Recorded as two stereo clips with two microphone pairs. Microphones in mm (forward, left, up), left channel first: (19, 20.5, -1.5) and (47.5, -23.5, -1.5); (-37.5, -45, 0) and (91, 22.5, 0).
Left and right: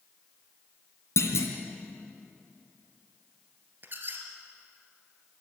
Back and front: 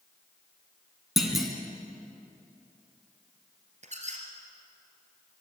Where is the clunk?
115° left, 2 m.